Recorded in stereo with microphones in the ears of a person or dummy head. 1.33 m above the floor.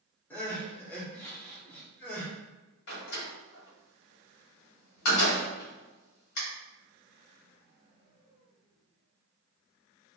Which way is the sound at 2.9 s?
70° left (ahead or behind).